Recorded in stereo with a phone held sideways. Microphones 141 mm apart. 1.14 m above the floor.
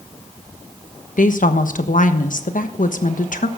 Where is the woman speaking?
70° left (ahead or behind), 1.2 m.